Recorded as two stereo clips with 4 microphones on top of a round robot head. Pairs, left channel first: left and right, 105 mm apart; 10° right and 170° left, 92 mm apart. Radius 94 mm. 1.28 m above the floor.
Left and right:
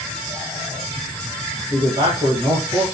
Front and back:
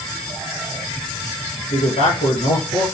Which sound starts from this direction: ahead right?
A man speaking, at 1.7 s.